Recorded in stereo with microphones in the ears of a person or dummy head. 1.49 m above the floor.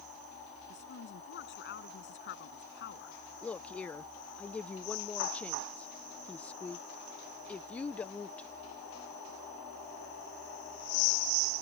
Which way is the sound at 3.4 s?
15° left (ahead or behind).